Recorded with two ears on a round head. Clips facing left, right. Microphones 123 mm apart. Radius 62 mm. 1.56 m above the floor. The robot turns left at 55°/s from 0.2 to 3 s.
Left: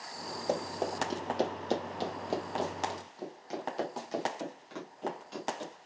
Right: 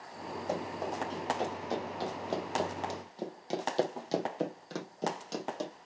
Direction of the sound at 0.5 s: 25° left (ahead or behind).